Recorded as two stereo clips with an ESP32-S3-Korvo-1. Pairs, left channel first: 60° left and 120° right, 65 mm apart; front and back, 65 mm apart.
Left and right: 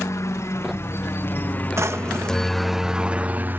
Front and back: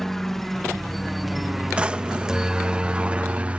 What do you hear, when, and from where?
0.0 s a helicopter: 85° left; by 3.6 s 130° right
1.8 s a drawer: 115° right